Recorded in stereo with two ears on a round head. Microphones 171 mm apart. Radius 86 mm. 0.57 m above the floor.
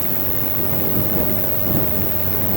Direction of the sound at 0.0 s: 5° left (ahead or behind).